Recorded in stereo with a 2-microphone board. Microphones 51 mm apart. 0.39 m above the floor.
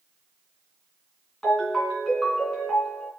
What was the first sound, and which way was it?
A ringtone, 5° left (ahead or behind).